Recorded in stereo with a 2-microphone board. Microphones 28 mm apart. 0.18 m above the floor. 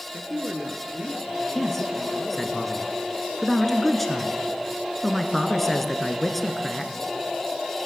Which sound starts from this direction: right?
A woman speaking, at 0.1 s.